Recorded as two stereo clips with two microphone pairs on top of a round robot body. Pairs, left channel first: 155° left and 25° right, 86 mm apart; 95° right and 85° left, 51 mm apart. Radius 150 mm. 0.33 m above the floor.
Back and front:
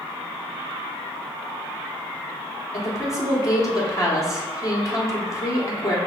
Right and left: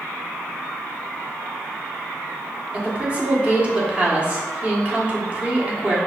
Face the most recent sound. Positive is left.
turn(degrees=155)